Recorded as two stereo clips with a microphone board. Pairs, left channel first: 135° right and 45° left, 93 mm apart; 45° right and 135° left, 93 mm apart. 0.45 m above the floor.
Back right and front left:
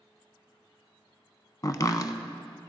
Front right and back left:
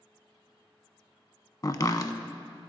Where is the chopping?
90° right, 0.6 m.